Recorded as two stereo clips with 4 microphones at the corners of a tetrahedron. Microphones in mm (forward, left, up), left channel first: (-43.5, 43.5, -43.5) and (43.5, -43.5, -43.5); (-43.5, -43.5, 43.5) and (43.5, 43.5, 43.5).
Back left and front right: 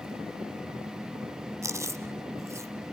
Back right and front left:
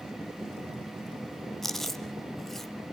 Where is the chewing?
50° right, 1.0 m.